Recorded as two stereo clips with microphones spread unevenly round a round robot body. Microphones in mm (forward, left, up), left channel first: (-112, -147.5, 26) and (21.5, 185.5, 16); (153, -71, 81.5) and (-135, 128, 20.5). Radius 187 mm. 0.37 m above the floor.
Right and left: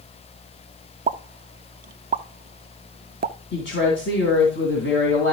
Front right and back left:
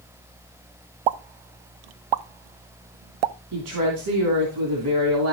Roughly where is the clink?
I don't hear a clink.